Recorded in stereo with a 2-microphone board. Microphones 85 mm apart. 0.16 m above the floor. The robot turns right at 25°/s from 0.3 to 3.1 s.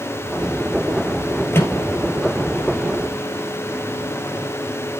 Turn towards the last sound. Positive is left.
turn(degrees=-10)  # may be behind; listen again after turning